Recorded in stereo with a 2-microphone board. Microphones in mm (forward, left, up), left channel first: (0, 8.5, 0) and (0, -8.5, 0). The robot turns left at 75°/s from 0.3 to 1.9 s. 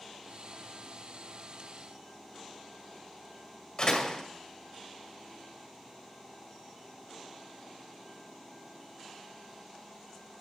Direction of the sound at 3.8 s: 45° left (ahead or behind).